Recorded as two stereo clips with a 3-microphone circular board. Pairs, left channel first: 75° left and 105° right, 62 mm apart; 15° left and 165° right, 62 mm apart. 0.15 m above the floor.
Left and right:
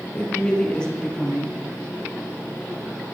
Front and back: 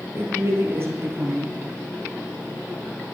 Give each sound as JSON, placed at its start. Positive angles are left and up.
{"t": 0.1, "sound": "a woman speaking", "azimuth_deg": 150, "distance_m": 4.0}